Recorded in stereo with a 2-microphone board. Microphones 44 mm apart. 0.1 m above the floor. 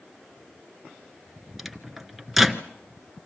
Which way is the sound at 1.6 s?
Centre (ahead or behind).